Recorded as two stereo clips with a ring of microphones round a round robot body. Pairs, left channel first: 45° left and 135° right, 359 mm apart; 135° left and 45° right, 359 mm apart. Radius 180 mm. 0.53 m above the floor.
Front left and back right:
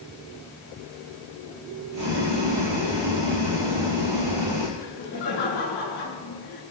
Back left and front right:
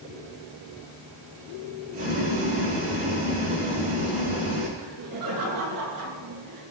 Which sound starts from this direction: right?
Boiling, at 1.9 s.